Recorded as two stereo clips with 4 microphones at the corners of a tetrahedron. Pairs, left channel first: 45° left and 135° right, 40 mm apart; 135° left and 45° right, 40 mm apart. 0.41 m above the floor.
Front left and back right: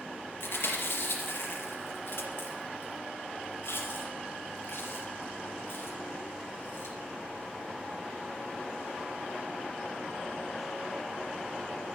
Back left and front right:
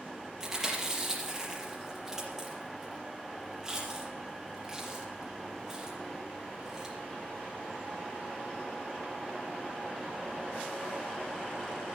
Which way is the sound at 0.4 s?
30° left.